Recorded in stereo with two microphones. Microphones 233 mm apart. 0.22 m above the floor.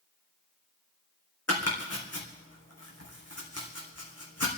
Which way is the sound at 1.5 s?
90° left.